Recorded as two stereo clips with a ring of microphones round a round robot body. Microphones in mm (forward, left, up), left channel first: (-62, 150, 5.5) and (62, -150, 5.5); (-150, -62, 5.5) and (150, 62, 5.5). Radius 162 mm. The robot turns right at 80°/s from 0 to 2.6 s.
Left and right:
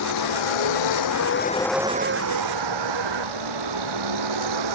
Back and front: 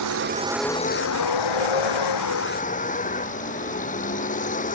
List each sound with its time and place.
0.0 s a vehicle: 65° left; by 4.8 s 90° right